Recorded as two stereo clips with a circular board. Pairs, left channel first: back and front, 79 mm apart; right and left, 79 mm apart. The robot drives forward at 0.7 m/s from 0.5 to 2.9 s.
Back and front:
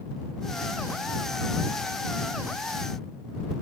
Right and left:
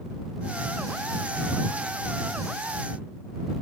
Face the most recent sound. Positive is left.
No sound to turn to.